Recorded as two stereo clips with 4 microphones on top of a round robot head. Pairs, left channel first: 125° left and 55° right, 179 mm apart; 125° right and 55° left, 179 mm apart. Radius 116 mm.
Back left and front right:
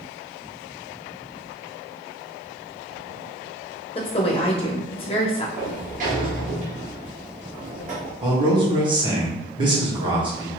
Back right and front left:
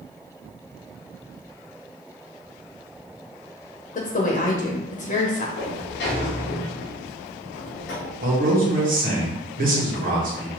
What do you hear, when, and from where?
4.0 s a woman speaking: 175° right, 0.8 m
5.6 s a sliding door: 100° right, 1.5 m
8.2 s a man speaking: 10° left, 1.7 m